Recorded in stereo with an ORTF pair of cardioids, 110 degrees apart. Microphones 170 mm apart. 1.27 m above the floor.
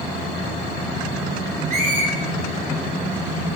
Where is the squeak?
60° right, 1.3 m.